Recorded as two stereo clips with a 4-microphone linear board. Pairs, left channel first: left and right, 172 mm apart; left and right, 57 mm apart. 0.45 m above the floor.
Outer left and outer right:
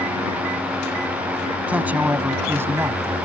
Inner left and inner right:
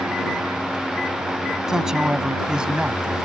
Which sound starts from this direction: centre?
A man speaking, at 1.7 s.